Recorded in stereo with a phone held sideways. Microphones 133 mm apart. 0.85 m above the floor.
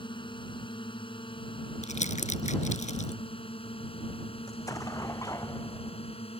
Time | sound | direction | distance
0.0 | a drone | 40° left (ahead or behind) | ?
1.8 | crumpling | 70° left (ahead or behind) | ?
4.5 | an explosion | 25° left (ahead or behind) | ?